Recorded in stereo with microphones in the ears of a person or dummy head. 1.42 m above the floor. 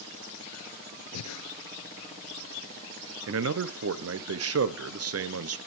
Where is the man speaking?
70° right (ahead or behind), 0.7 m.